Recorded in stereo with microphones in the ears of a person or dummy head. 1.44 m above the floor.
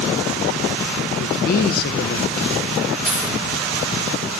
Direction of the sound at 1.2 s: 55° left (ahead or behind).